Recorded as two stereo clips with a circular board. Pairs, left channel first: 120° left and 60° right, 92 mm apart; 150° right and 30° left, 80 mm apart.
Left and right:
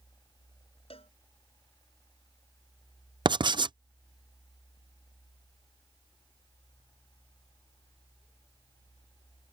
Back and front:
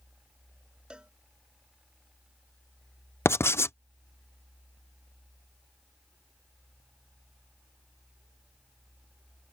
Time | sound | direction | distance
0.9 | a cowbell | 110° left | ?
3.2 | writing | 90° right | ?